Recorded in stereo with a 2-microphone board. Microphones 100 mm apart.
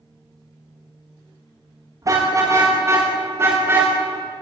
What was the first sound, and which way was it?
A car horn, 35° right (ahead or behind).